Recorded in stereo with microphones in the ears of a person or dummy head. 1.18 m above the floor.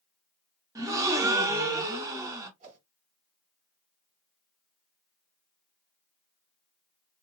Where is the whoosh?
45° right (ahead or behind), 2.5 m.